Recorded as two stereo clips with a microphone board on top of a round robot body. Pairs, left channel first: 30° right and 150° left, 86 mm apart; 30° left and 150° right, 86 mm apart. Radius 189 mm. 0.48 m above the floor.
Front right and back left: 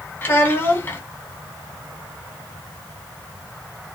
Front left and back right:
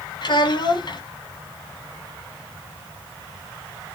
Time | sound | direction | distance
0.2 | a child speaking | 30° left | 1.1 m